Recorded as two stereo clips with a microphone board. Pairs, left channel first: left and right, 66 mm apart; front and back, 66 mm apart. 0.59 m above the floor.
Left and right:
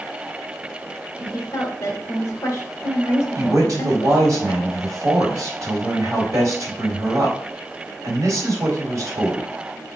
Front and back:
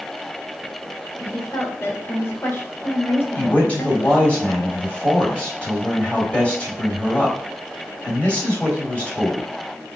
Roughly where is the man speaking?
Ahead right.